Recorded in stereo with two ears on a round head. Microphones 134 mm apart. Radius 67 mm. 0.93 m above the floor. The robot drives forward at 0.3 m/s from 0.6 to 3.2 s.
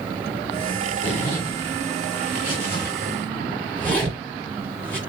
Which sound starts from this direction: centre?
A zipper, at 1.0 s.